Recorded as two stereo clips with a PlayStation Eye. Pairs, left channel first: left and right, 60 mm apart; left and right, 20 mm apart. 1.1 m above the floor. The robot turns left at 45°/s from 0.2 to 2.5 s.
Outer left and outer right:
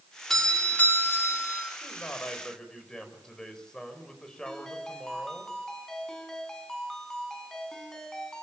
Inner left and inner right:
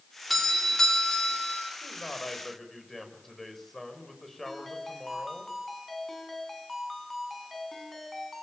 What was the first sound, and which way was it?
A doorbell, 175° left.